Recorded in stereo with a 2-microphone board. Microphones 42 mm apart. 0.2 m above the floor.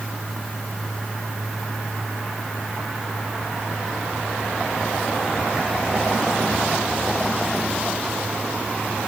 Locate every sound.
Only background noise.